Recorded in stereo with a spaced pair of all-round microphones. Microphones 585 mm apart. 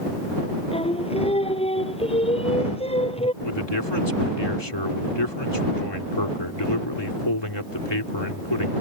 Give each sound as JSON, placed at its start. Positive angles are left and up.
{"t": 0.7, "sound": "singing", "side_deg": 10}
{"t": 3.4, "sound": "a man speaking", "side_deg": 45}